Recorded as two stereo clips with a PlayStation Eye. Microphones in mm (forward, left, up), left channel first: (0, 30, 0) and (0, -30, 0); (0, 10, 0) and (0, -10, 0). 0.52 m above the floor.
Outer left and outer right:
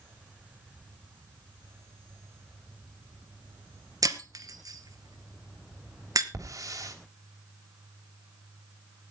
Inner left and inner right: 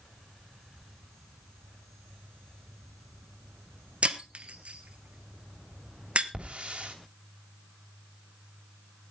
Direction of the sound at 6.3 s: 70° right (ahead or behind).